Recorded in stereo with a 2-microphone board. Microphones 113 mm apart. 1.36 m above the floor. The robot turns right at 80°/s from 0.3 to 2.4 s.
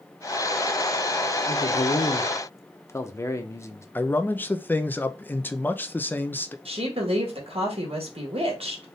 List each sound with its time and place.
1.5 s a man speaking: 80° left, 0.7 m; by 3.9 s 155° left, 0.7 m
4.0 s a man speaking: 15° left (ahead or behind), 0.5 m
6.7 s a woman speaking: 60° right (ahead or behind), 1.8 m